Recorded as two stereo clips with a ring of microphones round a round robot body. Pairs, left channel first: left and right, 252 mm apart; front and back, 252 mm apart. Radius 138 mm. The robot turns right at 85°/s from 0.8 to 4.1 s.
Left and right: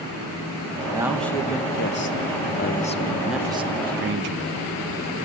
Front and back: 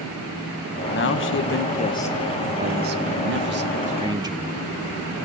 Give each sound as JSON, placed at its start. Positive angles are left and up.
{"t": 0.9, "sound": "a man speaking", "azimuth_deg": -20, "distance_m": 1.1}